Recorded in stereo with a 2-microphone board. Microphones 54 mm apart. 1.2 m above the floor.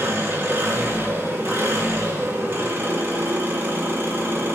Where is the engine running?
45° right (ahead or behind), 3.5 m.